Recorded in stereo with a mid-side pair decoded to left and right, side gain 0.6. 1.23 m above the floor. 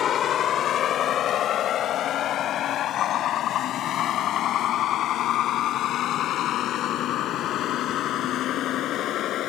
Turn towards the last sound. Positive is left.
turn(degrees=55)